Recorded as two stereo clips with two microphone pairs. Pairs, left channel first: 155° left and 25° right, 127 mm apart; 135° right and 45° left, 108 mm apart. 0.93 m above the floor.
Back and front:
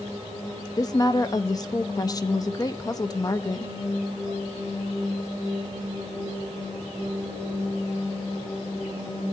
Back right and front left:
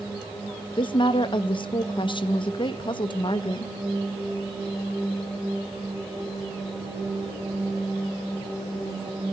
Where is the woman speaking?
150° right, 0.6 m.